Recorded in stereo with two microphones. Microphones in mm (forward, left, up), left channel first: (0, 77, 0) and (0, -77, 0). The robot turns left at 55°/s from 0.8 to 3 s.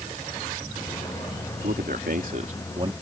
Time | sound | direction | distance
1.6 | a man speaking | 80° right | ?